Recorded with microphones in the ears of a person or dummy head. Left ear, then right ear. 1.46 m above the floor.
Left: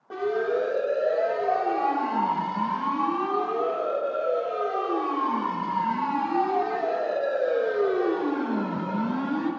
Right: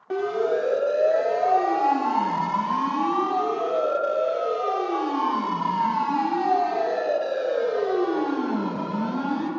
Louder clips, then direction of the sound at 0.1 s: Right 2 dB; 55° right (ahead or behind).